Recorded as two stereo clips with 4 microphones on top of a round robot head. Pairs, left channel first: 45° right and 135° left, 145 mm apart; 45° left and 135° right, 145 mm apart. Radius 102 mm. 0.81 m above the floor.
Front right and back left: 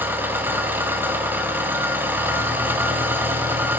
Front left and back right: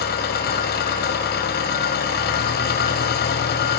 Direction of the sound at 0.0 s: 55° left.